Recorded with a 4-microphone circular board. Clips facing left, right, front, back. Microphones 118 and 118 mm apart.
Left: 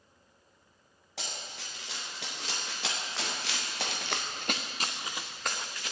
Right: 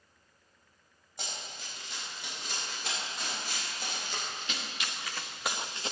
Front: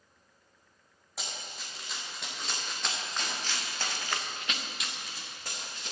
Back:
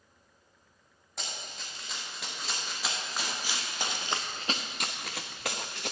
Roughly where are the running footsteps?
Left.